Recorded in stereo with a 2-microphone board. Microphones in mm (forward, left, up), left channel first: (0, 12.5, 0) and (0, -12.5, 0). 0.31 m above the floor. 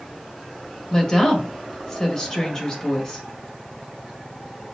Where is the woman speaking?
25° left (ahead or behind), 1.6 m.